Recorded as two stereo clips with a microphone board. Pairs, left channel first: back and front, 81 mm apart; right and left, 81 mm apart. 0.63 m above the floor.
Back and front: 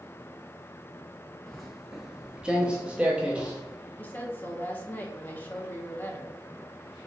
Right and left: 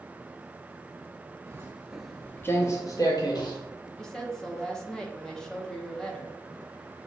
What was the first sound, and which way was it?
Footsteps, 95° left.